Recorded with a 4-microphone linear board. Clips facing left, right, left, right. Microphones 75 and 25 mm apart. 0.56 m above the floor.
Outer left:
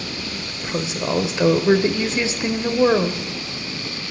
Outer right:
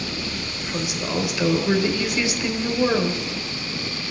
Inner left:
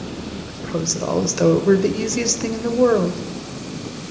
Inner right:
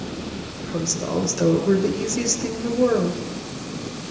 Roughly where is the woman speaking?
Left.